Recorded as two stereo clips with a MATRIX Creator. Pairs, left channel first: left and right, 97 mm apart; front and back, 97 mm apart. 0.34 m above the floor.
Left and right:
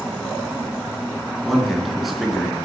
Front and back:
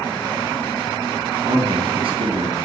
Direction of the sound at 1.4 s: Straight behind.